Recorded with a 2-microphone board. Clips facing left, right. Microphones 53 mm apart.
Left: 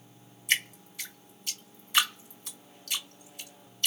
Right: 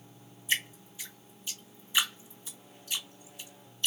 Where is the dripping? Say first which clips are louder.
Left 3 dB; 70° left (ahead or behind), 3 m.